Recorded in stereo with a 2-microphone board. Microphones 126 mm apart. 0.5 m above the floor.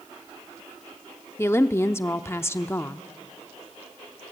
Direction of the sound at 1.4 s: 20° left (ahead or behind).